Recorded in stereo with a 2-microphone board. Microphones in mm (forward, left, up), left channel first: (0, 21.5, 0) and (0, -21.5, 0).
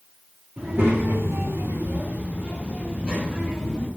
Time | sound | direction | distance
0.6 | a child speaking | 35° right (ahead or behind) | 1.5 m